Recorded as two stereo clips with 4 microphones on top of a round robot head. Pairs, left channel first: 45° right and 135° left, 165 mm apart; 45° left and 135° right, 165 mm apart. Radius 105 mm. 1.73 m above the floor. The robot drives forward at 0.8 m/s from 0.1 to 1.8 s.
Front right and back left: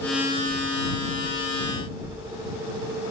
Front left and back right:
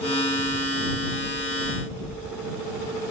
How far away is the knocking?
About 5 m.